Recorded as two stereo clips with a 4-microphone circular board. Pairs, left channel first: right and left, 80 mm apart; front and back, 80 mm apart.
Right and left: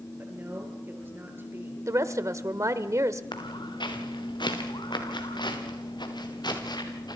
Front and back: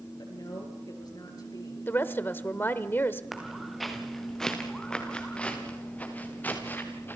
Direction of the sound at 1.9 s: 55° left.